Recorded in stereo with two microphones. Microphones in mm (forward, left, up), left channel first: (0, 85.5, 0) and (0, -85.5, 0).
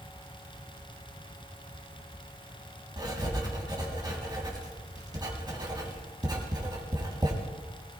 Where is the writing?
25° right (ahead or behind), 3.5 m.